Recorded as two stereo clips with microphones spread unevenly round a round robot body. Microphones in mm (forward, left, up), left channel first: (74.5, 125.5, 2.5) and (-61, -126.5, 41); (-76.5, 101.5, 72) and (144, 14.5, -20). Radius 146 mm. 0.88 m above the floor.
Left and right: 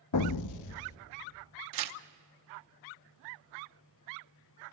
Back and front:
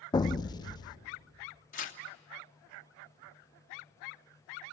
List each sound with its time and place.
0.1 s an explosion: 90° left, 0.5 m
1.7 s tearing paper: 140° right, 1.0 m